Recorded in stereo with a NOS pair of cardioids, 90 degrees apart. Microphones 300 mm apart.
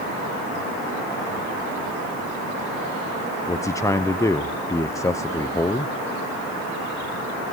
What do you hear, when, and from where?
3.5 s a man speaking: 10° left, 0.8 m